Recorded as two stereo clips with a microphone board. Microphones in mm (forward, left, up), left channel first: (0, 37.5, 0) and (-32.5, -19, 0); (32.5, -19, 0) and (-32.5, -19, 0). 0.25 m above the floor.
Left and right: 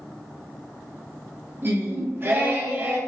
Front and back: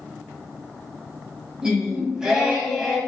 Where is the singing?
105° right, 1.4 m.